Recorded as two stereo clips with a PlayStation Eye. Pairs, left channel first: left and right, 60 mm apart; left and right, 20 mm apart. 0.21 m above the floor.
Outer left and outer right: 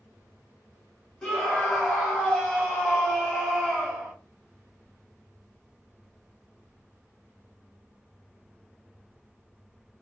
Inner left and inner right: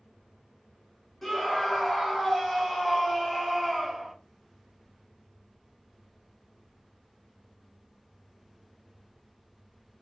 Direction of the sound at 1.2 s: 10° left (ahead or behind).